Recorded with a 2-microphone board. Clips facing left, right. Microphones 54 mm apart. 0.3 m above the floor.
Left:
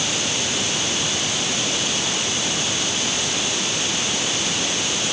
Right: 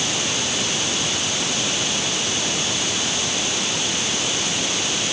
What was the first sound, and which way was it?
Only background noise.